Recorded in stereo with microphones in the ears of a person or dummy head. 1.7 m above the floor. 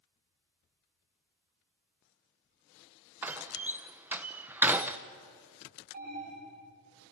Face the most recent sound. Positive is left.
turn(degrees=-50)  # may be behind; listen again after turning